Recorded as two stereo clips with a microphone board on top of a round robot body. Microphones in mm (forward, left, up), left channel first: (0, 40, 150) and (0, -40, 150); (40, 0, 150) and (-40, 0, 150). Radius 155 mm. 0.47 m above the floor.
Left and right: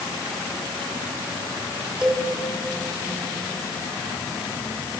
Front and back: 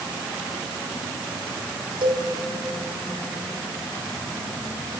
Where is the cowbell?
175° right, 3 m.